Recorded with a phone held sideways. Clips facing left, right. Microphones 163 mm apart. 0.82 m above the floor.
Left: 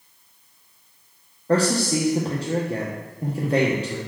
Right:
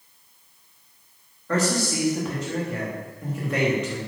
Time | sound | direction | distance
1.5 | a man speaking | 30° left (ahead or behind) | 0.9 m